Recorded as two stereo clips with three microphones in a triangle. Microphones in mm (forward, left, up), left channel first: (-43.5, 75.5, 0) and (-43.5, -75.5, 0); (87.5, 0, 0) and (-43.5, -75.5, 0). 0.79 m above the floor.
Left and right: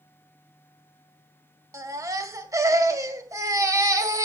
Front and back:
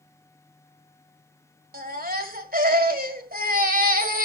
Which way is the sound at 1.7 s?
160° right.